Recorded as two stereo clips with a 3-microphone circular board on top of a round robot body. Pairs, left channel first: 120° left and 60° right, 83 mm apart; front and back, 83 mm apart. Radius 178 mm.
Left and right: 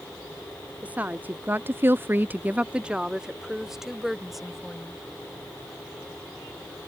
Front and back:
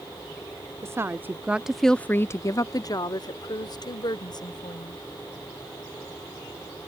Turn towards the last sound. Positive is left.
turn(degrees=30)